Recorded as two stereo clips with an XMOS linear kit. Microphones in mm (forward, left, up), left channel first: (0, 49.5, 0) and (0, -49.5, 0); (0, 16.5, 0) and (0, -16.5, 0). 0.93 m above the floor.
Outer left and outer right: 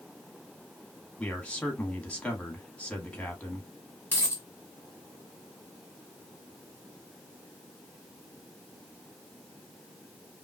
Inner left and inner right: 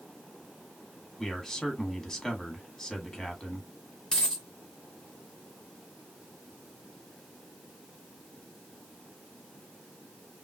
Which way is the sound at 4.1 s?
20° left (ahead or behind).